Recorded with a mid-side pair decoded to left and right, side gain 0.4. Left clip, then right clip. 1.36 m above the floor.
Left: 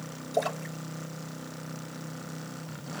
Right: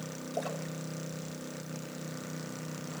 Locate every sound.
0.3 s a splash: 65° left, 4.5 m